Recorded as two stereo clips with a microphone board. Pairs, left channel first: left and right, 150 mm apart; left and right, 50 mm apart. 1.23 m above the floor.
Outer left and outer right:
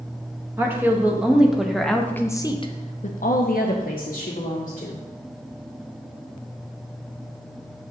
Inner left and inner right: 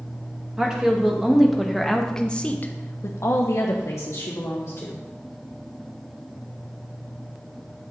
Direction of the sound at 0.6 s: 15° right (ahead or behind).